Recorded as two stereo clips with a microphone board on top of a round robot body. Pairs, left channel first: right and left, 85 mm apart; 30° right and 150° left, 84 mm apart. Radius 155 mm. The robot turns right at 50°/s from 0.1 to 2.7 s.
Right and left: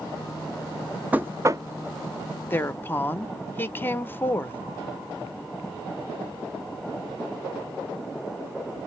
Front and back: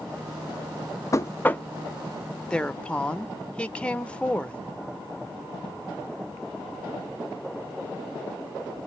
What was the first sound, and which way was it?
Knocking, 20° left.